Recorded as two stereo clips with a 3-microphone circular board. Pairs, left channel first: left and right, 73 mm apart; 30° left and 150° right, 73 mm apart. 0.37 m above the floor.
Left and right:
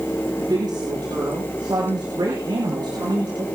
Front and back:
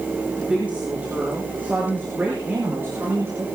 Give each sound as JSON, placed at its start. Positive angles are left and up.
{"t": 0.4, "sound": "a woman speaking", "azimuth_deg": -80, "distance_m": 6.5}